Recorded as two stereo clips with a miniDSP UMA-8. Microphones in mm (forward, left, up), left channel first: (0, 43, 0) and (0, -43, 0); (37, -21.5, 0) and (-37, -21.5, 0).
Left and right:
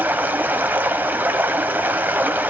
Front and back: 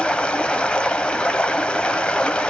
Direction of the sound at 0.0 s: 60° right.